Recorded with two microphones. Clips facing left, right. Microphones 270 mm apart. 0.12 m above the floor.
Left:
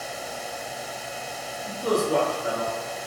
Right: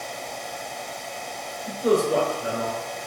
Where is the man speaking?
20° right (ahead or behind), 1.7 m.